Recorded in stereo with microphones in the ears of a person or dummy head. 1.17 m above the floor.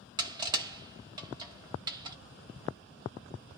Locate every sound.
0.2 s crushing: 25° right (ahead or behind), 0.8 m